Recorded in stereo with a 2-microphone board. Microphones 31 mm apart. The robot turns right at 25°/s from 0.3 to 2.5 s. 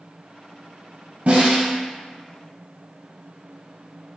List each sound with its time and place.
1.3 s a snare drum: 55° right (ahead or behind), 1.6 m; by 1.7 s 60° right (ahead or behind), 1.6 m